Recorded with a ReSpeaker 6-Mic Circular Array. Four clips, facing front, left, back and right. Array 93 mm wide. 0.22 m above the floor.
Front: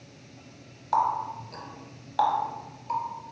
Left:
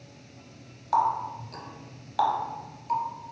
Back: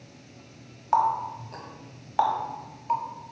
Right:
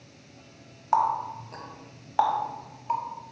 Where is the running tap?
125° right, 0.7 m.